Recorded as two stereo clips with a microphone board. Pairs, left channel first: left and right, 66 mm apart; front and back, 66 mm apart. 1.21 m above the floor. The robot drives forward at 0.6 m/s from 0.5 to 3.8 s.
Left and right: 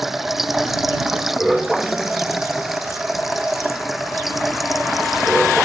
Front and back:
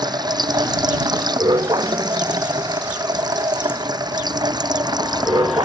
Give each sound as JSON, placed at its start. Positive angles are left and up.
{"t": 0.0, "sound": "running water", "azimuth_deg": -175}